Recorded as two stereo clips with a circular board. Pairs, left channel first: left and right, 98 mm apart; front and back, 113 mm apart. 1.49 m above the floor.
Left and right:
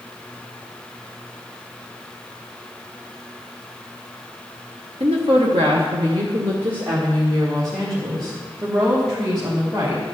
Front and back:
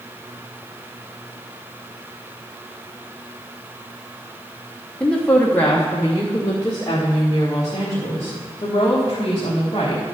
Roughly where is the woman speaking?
Right.